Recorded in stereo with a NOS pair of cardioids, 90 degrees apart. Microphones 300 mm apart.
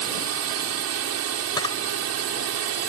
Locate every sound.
0.0 s a drone: 65° right
1.6 s a camera shutter: 15° left